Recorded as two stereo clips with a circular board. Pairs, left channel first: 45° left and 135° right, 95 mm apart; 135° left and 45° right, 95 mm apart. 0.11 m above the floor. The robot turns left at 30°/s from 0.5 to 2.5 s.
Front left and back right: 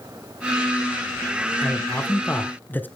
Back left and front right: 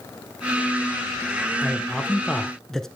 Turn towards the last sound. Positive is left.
turn(degrees=60)